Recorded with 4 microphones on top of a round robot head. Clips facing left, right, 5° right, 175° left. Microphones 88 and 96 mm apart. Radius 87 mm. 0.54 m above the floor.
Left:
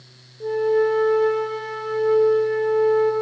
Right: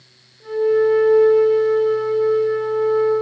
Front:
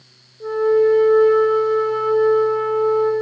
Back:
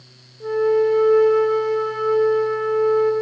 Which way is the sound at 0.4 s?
70° left.